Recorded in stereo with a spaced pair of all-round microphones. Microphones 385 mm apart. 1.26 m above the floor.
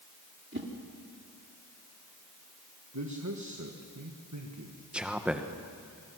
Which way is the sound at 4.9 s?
5° right (ahead or behind).